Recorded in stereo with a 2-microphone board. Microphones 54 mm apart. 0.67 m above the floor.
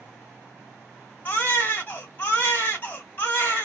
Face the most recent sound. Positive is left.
turn(degrees=40)  # may be behind; listen again after turning